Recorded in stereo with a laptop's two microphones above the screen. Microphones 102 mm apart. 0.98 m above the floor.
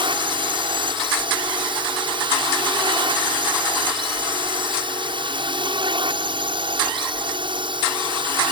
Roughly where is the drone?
Right.